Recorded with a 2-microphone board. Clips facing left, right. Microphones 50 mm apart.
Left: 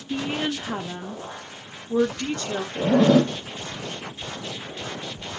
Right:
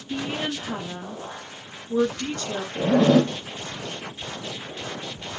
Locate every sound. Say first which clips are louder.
0.1 s a woman speaking: left 2 dB; 20° left (ahead or behind), 1.0 m
2.8 s a zipper: even; centre (ahead or behind), 1.0 m